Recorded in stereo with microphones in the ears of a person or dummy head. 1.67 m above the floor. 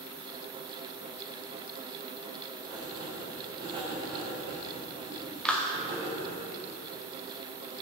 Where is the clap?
5° left (ahead or behind), 0.8 m.